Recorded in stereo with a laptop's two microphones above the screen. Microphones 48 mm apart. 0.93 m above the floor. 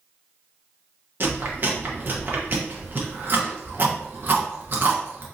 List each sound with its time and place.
1.2 s chewing: 50° right (ahead or behind), 0.9 m